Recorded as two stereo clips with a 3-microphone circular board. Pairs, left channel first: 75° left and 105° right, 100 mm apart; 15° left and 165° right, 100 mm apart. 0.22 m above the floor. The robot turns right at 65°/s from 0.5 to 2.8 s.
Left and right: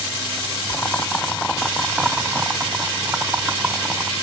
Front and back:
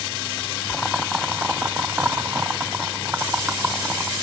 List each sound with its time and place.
0.7 s boiling: 90° left, 0.7 m; by 4.1 s 130° right, 0.7 m